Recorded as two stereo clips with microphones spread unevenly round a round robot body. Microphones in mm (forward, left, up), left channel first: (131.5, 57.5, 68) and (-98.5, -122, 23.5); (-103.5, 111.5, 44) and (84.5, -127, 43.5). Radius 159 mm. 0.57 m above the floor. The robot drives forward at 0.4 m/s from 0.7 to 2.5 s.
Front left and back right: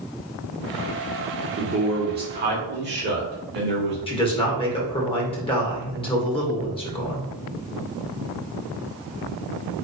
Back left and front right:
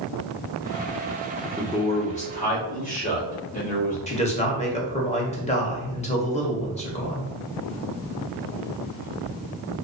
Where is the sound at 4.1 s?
105° left, 0.6 m.